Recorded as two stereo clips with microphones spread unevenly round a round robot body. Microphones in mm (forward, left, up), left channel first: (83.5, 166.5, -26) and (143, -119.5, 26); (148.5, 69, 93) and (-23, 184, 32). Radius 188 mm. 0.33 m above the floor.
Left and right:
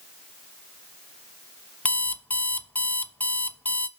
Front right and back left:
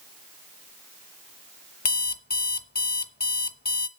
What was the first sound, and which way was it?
An alarm clock, 20° left.